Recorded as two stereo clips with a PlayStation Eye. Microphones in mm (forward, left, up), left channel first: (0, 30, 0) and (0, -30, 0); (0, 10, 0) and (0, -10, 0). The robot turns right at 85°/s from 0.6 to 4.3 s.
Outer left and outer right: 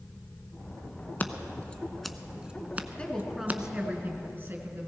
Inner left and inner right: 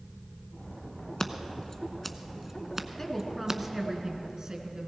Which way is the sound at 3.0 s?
150° left.